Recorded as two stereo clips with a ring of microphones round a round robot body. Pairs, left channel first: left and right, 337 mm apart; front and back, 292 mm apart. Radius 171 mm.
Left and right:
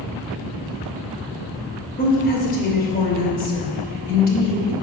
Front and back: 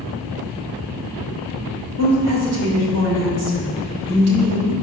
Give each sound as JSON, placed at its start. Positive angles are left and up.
{"t": 2.0, "sound": "a woman speaking", "azimuth_deg": 150, "distance_m": 2.5}